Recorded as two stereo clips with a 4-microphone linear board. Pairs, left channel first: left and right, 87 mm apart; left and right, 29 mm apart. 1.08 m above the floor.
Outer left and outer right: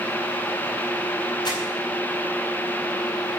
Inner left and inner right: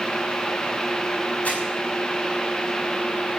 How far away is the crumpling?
About 5.5 m.